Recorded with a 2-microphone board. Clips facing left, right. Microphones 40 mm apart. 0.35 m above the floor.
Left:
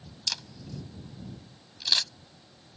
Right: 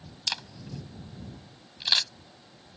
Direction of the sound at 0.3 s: 20° right (ahead or behind).